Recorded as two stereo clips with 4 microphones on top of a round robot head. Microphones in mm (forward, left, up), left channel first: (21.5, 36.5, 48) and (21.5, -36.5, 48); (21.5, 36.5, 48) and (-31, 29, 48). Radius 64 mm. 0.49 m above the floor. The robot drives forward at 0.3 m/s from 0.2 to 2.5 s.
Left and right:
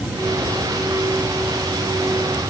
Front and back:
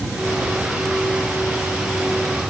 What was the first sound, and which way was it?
Only background noise.